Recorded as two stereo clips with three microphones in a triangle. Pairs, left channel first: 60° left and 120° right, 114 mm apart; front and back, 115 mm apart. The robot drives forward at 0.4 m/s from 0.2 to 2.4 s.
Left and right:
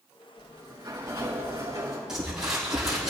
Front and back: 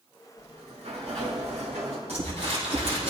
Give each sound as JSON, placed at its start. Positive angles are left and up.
{"t": 0.4, "sound": "a sliding door", "azimuth_deg": 180, "distance_m": 4.0}
{"t": 2.1, "sound": "crumpling", "azimuth_deg": 155, "distance_m": 6.5}